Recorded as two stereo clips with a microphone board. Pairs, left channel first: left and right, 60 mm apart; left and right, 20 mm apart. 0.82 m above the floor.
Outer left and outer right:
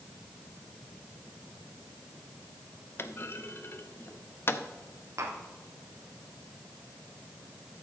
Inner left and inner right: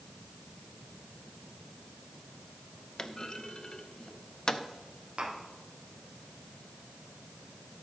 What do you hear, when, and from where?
3.0 s a clunk: 40° left (ahead or behind), 0.7 m
5.2 s tapping: 65° right (ahead or behind), 2.5 m